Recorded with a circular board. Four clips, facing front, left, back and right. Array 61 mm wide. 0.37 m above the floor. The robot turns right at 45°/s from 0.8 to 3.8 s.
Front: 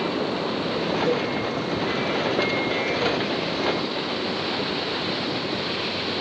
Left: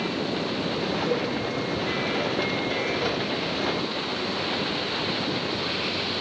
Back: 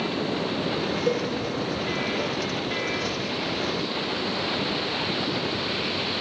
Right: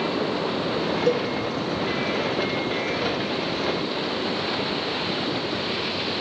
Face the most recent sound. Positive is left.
turn(degrees=5)